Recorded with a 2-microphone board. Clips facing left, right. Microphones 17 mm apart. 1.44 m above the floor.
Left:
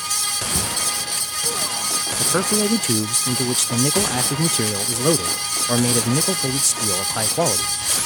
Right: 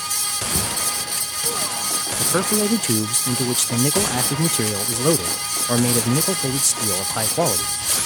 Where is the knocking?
15° left (ahead or behind).